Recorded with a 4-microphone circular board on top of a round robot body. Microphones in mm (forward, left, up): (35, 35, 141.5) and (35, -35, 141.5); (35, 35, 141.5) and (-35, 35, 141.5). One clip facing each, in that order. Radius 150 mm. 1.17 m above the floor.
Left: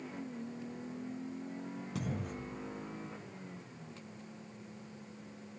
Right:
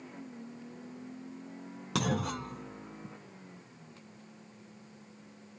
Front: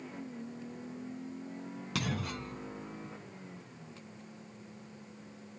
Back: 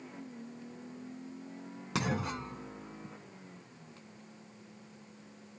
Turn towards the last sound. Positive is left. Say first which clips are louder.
# right 9 dB, back 3 dB
turn(degrees=-110)